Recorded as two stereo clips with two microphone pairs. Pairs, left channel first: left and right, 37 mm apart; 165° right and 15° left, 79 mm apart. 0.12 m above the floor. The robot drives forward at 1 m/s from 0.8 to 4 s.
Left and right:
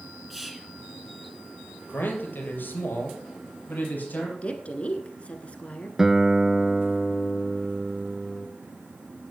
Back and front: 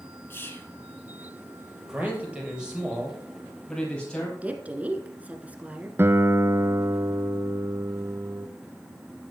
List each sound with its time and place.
0.3 s whispering: 175° right, 1.1 m
1.9 s a man speaking: 80° left, 3.5 m; by 4.3 s 115° left, 4 m
4.4 s a woman speaking: 70° left, 1.3 m
6.0 s a guitar: 20° right, 0.6 m